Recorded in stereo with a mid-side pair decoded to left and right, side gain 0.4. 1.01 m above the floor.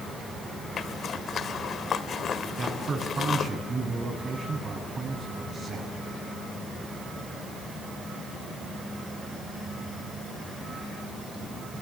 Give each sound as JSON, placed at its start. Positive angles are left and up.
{"t": 0.8, "sound": "a zipper", "azimuth_deg": 60, "distance_m": 1.8}
{"t": 2.6, "sound": "a man speaking", "azimuth_deg": -40, "distance_m": 8.0}